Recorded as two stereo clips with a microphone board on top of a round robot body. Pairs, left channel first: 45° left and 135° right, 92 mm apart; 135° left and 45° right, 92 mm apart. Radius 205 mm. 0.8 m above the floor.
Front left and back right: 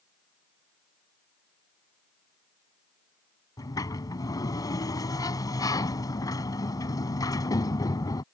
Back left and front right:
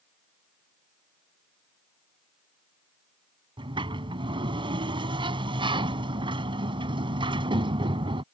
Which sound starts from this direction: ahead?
A sliding door, at 3.6 s.